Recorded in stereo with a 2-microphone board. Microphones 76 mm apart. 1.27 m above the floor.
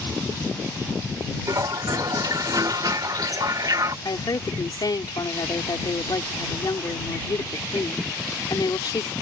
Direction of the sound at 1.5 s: 55° right (ahead or behind).